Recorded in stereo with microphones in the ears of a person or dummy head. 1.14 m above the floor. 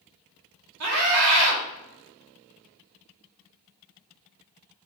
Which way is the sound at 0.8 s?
85° right.